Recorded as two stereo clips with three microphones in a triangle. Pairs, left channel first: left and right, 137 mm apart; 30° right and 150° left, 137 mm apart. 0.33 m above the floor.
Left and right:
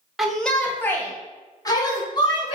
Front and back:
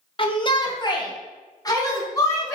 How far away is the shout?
About 1.6 m.